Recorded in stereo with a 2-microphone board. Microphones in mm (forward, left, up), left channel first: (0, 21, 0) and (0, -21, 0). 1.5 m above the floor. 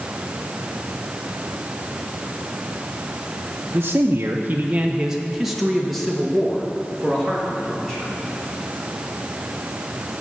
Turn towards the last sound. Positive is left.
turn(degrees=15)  # may be behind; listen again after turning